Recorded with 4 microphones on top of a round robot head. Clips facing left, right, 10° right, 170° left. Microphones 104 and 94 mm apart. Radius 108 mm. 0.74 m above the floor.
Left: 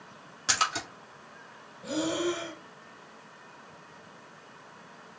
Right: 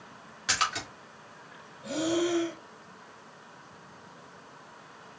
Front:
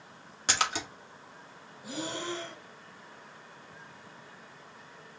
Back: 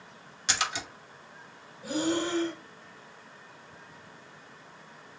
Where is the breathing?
135° left, 1.9 m.